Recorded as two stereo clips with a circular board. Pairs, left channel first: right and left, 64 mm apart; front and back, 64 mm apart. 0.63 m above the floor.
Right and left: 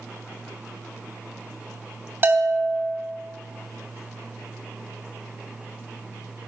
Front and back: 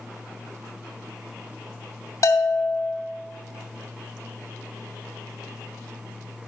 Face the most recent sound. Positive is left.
turn(degrees=40)